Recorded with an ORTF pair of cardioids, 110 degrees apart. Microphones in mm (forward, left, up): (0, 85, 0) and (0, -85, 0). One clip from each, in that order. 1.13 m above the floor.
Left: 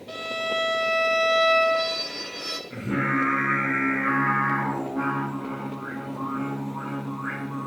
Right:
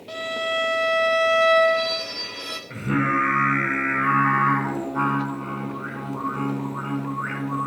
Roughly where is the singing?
Ahead right.